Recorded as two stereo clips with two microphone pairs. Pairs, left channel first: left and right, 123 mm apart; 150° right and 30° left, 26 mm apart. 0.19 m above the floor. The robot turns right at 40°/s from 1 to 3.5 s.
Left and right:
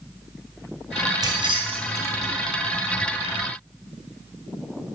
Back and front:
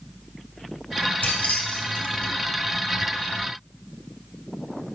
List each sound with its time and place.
1.2 s keys jangling: 140° right, 2 m; by 2.3 s 95° right, 2 m